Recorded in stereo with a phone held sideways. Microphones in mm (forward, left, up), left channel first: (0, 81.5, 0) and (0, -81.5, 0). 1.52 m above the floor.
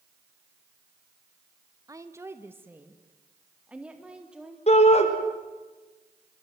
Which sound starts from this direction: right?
A woman speaking, at 1.9 s.